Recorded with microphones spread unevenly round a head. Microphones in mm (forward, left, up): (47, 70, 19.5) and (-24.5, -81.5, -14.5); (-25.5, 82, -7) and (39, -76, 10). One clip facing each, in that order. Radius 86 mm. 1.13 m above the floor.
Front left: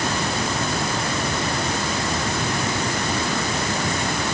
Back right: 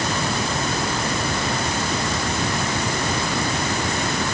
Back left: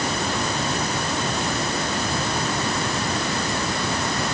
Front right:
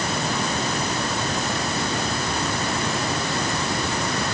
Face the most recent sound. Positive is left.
No sound to turn to.